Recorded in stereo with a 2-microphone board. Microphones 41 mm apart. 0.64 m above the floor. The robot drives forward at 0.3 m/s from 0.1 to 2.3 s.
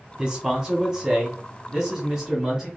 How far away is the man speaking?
About 0.9 m.